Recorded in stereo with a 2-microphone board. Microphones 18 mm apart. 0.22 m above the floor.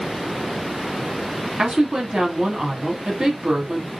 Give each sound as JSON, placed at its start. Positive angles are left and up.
{"t": 1.6, "sound": "a woman speaking", "side_deg": -50, "distance_m": 1.8}